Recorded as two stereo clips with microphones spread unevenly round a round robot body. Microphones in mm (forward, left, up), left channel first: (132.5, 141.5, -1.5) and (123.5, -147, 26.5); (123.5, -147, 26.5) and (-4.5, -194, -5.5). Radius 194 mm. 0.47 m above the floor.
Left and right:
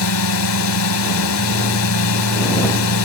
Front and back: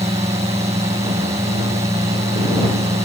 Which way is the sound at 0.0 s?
130° left.